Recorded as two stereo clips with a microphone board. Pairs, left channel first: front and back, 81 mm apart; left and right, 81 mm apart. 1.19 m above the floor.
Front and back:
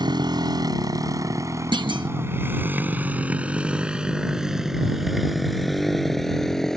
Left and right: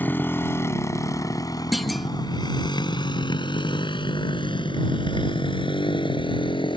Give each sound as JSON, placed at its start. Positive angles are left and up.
{"t": 0.0, "sound": "a motorcycle", "azimuth_deg": 155}
{"t": 1.7, "sound": "a clunk", "azimuth_deg": 180}